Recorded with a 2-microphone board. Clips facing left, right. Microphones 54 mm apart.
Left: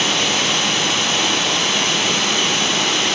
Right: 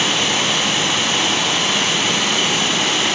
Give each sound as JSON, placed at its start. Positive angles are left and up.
{"t": 0.0, "sound": "running water", "side_deg": -15, "distance_m": 1.5}